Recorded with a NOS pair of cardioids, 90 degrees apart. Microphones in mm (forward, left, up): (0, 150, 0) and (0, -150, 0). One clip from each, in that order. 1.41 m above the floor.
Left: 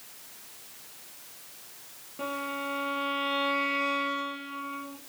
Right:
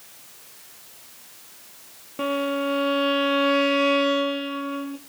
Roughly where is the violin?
Ahead right.